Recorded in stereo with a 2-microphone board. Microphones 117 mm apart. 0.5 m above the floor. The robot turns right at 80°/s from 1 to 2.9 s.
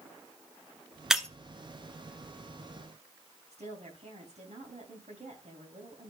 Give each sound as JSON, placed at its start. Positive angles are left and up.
{"t": 1.1, "sound": "breaking glass", "side_deg": -5, "distance_m": 1.0}
{"t": 3.5, "sound": "a woman speaking", "side_deg": -70, "distance_m": 3.5}